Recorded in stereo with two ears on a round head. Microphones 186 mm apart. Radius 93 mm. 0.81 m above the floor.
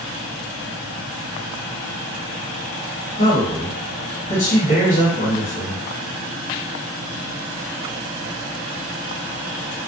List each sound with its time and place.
3.2 s a man speaking: 35° left (ahead or behind), 1.2 m